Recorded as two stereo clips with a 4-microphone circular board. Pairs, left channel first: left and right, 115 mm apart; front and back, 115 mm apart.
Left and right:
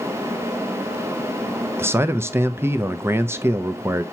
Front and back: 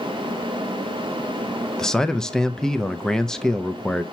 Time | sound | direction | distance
1.8 | a man speaking | 75° right | 0.6 m